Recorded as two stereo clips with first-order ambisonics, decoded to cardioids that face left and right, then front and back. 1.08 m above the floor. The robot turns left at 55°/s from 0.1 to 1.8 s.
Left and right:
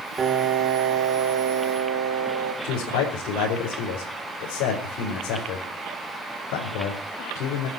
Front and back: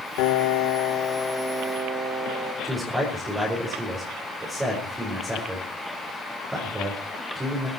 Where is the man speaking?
100° left, 4.5 m.